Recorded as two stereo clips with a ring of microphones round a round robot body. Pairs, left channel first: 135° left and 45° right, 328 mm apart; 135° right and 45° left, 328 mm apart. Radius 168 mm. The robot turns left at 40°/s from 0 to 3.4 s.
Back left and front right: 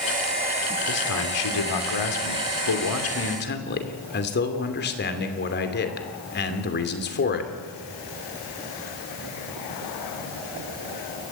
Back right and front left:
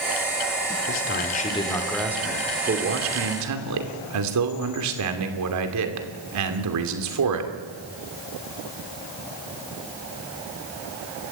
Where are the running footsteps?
I don't hear running footsteps.